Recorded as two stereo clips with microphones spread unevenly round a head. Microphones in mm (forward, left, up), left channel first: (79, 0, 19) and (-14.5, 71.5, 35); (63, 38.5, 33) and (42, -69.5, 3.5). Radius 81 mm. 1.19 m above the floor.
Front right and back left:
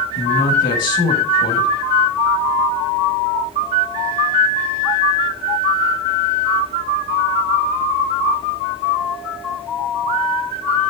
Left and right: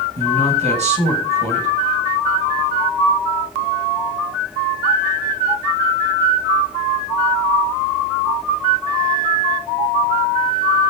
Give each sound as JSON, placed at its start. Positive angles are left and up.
{"t": 0.2, "sound": "a man speaking", "azimuth_deg": -80, "distance_m": 8.5}